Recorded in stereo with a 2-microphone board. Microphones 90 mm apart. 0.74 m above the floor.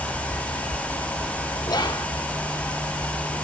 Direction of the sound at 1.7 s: 50° left (ahead or behind).